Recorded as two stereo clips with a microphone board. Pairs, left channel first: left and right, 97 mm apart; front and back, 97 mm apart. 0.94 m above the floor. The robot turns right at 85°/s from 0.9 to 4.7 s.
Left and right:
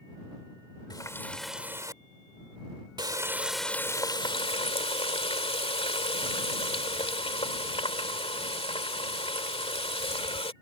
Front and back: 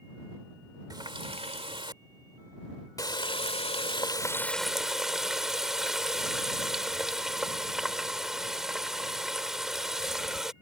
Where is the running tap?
130° left; by 10.5 s 95° left.